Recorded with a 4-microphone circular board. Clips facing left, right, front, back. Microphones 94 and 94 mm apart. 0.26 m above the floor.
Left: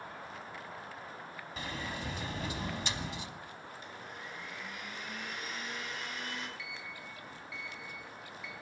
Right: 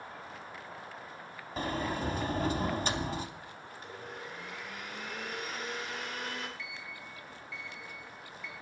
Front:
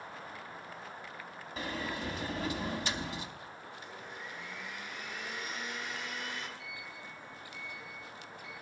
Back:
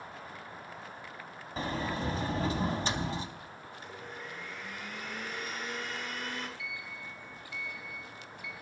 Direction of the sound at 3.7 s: 135° right.